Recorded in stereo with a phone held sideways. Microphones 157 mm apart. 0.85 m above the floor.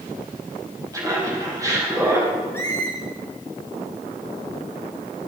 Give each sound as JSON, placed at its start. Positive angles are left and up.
{"t": 0.9, "sound": "laughter", "side_deg": -20, "distance_m": 5.0}
{"t": 2.5, "sound": "a squeak", "side_deg": 15, "distance_m": 3.0}